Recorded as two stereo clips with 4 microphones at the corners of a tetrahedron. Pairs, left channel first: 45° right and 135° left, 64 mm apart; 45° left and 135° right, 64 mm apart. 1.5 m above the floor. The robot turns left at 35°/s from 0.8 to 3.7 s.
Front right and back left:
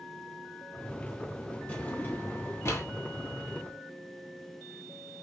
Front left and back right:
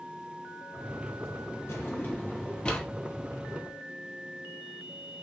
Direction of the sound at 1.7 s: 10° left.